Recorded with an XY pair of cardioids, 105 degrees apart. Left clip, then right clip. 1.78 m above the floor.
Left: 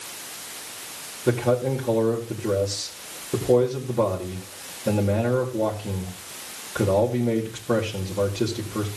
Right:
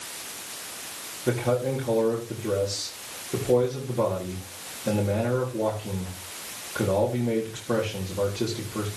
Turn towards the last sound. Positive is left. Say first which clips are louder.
# left 3 dB
turn(degrees=25)